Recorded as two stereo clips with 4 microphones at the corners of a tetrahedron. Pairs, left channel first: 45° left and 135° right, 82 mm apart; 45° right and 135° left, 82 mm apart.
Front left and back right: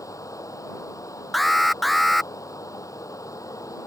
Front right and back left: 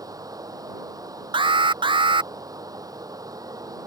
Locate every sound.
0.0 s running water: 90° left
1.3 s an alarm: 135° left